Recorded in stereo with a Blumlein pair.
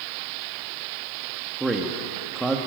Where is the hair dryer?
No hair dryer in this recording.